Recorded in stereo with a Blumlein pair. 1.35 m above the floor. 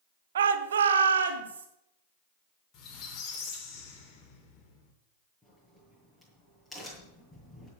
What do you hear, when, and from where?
0.3 s a shout: 60° right, 1.2 m; by 1.7 s 65° right, 3 m
2.7 s a squeak: 30° left, 3 m
5.4 s a crack: 5° left, 7.5 m